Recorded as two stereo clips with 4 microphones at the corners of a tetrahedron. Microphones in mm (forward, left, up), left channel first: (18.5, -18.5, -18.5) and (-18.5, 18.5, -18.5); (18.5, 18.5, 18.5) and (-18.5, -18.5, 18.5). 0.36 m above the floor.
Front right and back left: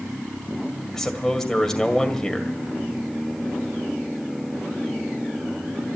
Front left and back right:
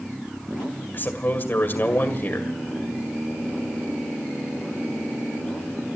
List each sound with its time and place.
0.9 s a man speaking: 30° left, 1.9 m